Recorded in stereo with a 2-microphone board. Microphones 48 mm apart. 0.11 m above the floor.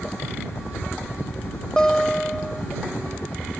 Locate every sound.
0.0 s a helicopter: 45° left (ahead or behind); by 3.6 s 35° left (ahead or behind)
1.8 s a guitar: 15° left (ahead or behind)